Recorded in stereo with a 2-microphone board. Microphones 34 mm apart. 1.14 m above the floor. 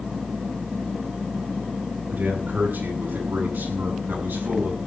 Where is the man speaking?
65° right (ahead or behind), 8.5 m; by 4.8 s 85° right, 8 m.